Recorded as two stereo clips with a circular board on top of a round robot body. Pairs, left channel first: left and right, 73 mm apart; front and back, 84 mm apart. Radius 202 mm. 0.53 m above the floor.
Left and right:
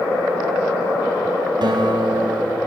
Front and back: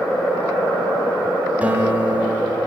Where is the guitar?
110° right, 1.5 m.